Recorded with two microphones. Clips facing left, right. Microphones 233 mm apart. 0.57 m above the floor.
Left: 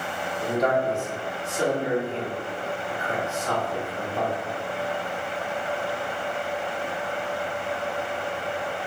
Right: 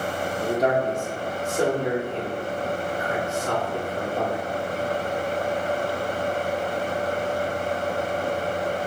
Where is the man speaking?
30° right (ahead or behind), 1.0 m; by 4.4 s 55° right (ahead or behind), 3 m.